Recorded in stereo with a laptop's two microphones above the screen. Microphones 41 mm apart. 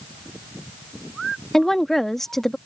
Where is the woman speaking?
10° left (ahead or behind).